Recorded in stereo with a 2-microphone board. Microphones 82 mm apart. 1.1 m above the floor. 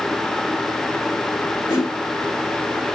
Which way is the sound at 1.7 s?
35° left (ahead or behind).